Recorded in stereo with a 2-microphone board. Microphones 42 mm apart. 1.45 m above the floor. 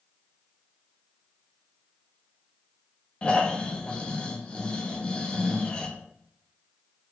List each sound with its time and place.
3.2 s snoring: 25° left (ahead or behind), 0.6 m
4.9 s a whoosh: 50° left (ahead or behind), 1.2 m